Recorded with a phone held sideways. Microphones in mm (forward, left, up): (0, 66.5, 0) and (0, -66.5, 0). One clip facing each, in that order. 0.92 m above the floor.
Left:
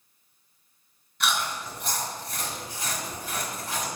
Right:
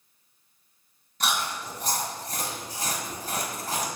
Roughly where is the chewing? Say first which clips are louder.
Even; right.